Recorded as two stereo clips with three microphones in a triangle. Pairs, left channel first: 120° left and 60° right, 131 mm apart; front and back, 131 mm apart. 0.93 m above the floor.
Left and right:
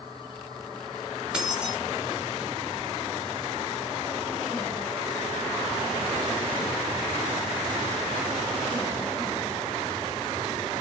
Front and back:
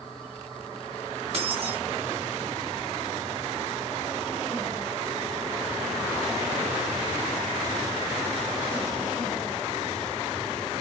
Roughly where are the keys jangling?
Behind right.